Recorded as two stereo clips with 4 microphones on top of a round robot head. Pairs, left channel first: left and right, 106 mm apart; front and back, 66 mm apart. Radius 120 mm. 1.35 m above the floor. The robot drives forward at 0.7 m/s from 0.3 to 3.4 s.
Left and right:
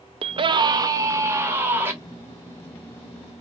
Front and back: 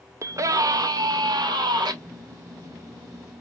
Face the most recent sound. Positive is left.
turn(degrees=-170)